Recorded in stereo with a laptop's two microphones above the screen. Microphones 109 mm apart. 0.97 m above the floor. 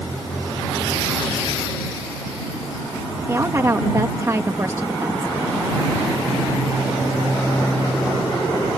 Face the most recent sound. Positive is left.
turn(degrees=-30)  # may be behind; listen again after turning